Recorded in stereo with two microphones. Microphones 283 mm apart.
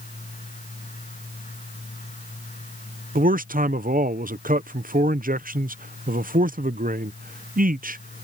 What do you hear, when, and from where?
3.1 s a man speaking: 30° right (ahead or behind)